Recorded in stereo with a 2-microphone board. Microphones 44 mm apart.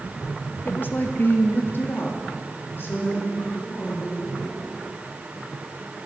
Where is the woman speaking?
45° left (ahead or behind), 0.8 m; by 4.6 s 55° left (ahead or behind), 4 m.